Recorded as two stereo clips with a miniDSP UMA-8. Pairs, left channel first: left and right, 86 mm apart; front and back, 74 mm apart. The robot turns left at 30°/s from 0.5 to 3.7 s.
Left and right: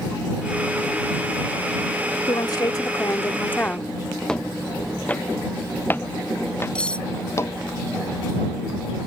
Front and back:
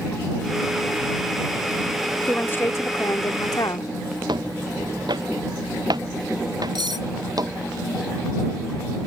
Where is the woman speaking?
65° left; by 3.9 s 20° left.